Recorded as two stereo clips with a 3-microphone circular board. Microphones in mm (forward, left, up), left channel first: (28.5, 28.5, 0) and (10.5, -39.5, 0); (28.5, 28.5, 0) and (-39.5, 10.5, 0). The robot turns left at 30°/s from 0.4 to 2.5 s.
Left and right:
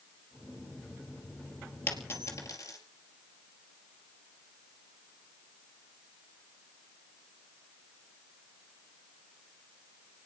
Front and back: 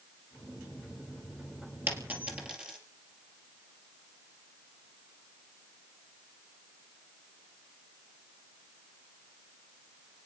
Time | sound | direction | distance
1.9 | a dropped coin | 135° left | 3 m